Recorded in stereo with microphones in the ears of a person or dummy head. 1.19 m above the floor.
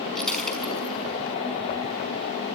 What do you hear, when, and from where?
0.1 s breaking glass: centre (ahead or behind), 5.5 m